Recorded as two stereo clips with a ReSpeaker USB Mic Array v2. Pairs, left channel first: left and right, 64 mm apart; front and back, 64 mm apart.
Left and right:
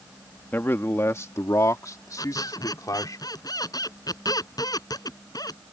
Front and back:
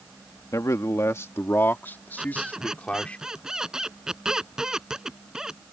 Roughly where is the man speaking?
Ahead left.